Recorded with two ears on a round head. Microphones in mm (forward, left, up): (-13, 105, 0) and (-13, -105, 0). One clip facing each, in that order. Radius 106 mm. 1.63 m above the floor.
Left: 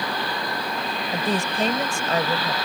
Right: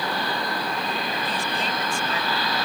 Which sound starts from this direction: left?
A woman speaking, at 1.1 s.